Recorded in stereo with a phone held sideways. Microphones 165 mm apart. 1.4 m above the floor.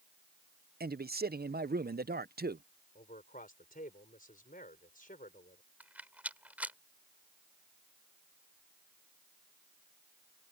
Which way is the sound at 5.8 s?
10° right (ahead or behind).